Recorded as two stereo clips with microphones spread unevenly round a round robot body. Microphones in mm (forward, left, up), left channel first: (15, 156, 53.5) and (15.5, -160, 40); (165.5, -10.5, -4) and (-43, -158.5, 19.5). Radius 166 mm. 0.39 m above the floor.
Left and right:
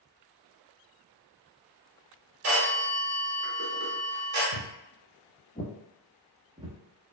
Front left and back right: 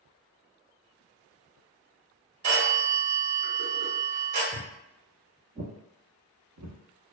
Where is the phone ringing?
130° right, 1.0 m.